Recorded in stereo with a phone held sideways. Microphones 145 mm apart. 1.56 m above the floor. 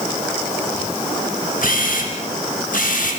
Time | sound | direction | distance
1.6 | a camera shutter | 70° left (ahead or behind) | 4.5 m